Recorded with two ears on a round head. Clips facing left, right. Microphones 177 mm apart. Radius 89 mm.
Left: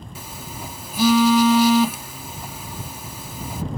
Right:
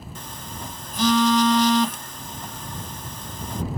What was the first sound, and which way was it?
A phone buzzing, 5° left (ahead or behind).